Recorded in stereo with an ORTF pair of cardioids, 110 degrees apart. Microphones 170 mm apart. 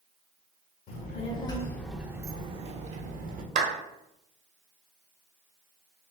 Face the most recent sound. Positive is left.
turn(degrees=-50)